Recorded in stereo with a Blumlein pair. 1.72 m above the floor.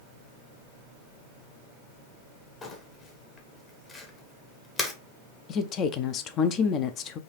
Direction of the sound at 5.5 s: 30° left.